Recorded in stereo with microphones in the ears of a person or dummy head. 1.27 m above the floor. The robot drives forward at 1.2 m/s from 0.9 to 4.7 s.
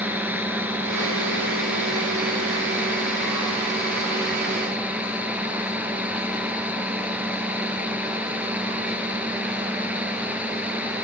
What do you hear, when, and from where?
0.0 s a drone: 10° right (ahead or behind); by 11.0 s 5° right (ahead or behind)